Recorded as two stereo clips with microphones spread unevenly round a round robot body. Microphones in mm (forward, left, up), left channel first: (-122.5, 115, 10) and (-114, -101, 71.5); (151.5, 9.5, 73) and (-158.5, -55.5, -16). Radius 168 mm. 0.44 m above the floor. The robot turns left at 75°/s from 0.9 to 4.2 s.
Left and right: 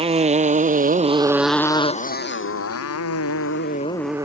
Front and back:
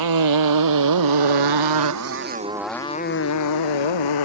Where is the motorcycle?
150° right; by 4.2 s 5° right.